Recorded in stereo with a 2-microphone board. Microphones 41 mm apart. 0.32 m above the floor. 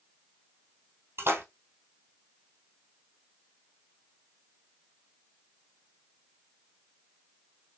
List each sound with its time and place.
1.2 s a splash: 90° right, 2 m